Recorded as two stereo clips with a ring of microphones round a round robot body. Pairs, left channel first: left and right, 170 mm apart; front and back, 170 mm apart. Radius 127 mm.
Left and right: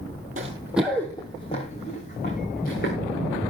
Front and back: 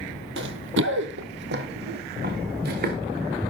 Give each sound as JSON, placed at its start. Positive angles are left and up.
{"t": 0.4, "sound": "running footsteps", "azimuth_deg": -150, "distance_m": 1.1}